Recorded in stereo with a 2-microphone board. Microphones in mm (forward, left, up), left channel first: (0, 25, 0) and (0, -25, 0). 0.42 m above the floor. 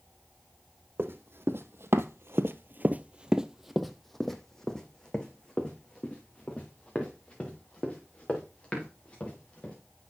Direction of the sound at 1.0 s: 55° right (ahead or behind).